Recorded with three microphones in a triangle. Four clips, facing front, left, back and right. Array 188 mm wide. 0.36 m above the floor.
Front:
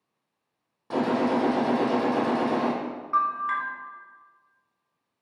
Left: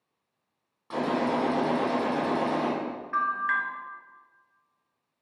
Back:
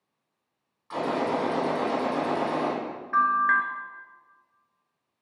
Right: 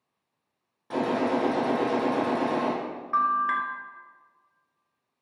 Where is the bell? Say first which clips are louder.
Right 4 dB, back 3 dB; 135° right, 0.9 m.